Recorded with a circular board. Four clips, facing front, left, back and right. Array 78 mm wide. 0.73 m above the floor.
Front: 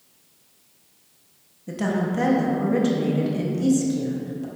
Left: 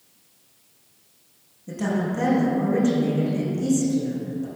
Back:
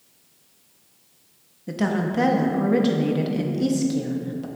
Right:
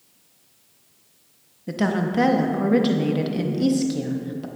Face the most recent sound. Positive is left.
turn(degrees=-105)